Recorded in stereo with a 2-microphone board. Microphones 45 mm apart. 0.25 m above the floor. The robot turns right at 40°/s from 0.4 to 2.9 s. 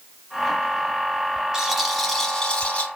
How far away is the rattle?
About 1.0 m.